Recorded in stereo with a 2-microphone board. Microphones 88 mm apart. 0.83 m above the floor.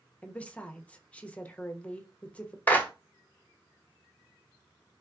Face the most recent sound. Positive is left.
turn(degrees=20)  # may be behind; listen again after turning